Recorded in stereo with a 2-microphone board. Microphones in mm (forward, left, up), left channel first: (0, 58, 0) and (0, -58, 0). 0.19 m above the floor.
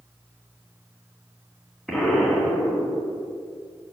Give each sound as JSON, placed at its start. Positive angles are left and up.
{"t": 1.9, "sound": "an explosion", "side_deg": 0, "distance_m": 1.7}